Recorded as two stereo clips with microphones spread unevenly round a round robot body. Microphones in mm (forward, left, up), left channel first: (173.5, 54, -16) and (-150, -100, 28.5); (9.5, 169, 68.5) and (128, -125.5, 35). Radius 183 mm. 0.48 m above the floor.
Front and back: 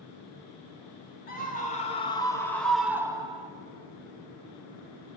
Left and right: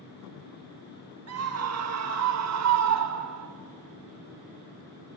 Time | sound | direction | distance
1.3 | a scream | 35° right | 3 m